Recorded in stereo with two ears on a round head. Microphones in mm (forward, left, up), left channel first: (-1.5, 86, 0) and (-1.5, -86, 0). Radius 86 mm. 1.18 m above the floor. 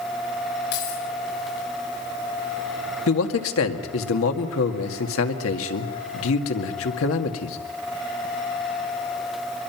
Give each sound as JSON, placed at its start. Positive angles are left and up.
{"t": 0.7, "sound": "keys jangling", "side_deg": 65, "distance_m": 6.0}
{"t": 3.1, "sound": "a man speaking", "side_deg": 80, "distance_m": 2.0}